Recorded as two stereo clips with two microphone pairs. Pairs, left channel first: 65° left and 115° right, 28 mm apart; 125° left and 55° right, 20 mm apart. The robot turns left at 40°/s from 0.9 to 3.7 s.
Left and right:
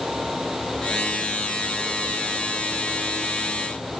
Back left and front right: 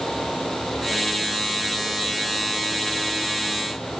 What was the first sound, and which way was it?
Only background noise.